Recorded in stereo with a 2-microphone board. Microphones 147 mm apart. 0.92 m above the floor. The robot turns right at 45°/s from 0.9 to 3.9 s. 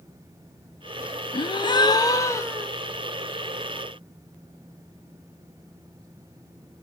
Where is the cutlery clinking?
No cutlery clinking in this recording.